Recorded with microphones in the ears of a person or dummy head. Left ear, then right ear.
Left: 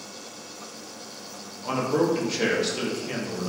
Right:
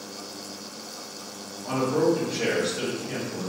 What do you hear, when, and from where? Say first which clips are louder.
1.6 s a man speaking: even; 60° left (ahead or behind), 1.1 m